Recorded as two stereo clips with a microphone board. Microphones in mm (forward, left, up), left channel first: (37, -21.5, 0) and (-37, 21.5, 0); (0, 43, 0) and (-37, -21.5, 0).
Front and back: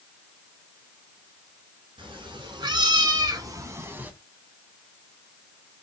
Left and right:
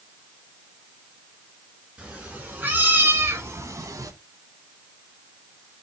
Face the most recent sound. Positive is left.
turn(degrees=-140)